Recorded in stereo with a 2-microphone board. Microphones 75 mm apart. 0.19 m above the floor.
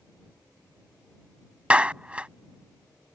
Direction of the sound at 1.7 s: 15° right (ahead or behind).